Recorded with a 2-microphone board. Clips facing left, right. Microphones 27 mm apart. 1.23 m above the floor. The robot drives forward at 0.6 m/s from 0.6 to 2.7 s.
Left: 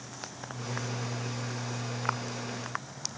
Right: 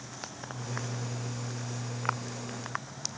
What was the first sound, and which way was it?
Only background noise.